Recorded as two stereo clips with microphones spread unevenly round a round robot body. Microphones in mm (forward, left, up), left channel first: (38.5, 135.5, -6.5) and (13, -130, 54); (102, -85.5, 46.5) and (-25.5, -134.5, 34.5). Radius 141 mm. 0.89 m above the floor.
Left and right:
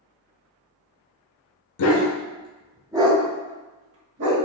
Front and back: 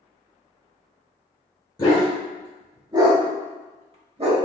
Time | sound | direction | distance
1.8 | a dog barking | 75° left | 0.6 m